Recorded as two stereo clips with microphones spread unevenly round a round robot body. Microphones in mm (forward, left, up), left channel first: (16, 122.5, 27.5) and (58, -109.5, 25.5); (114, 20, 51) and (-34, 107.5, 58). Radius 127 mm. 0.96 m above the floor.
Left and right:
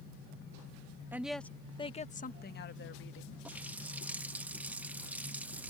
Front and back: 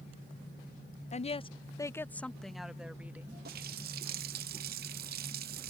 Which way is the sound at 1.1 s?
Straight ahead.